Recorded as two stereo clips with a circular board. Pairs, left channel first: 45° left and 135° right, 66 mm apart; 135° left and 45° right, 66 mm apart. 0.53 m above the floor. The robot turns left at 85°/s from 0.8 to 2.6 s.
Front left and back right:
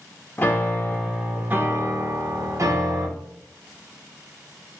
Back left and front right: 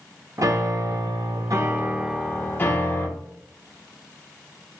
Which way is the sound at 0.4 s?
15° right.